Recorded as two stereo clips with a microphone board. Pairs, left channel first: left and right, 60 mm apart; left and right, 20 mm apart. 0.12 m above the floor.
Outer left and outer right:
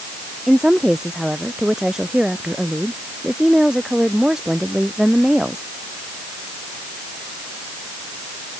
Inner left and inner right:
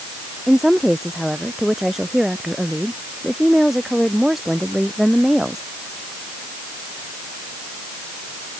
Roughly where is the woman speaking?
Centre.